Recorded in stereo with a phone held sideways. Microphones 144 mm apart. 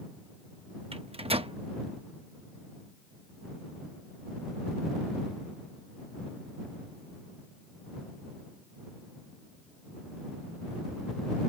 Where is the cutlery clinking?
I don't hear cutlery clinking.